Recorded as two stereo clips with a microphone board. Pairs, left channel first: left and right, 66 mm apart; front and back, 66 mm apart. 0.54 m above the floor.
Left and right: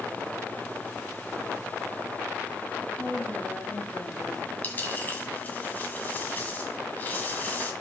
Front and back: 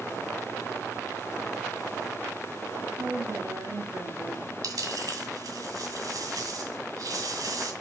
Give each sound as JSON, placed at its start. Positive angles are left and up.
{"t": 3.0, "sound": "a woman speaking", "azimuth_deg": 150, "distance_m": 3.5}
{"t": 4.6, "sound": "a dropped coin", "azimuth_deg": 155, "distance_m": 2.0}